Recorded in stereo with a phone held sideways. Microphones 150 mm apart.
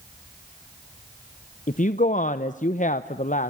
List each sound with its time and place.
1.7 s a woman speaking: 55° left (ahead or behind), 0.8 m